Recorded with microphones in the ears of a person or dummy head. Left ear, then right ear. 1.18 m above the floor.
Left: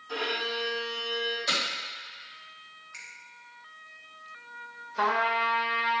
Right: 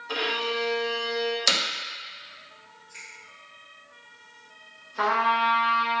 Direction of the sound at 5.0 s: 10° left (ahead or behind).